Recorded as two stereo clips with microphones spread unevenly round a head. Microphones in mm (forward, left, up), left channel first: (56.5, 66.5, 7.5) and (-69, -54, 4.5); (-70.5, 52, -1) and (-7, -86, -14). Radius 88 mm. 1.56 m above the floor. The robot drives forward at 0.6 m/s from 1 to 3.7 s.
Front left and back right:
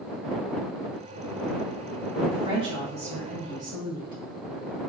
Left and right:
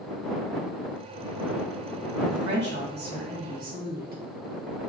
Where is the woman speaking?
70° right, 2 m; by 4.2 s 90° right, 2.0 m.